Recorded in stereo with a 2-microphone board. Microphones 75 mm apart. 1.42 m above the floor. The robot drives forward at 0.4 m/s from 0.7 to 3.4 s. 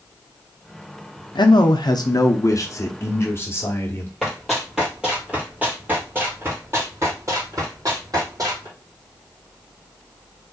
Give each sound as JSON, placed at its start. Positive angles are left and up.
{"t": 1.4, "sound": "a man speaking", "side_deg": 80, "distance_m": 0.6}
{"t": 4.2, "sound": "running footsteps", "side_deg": 0, "distance_m": 1.9}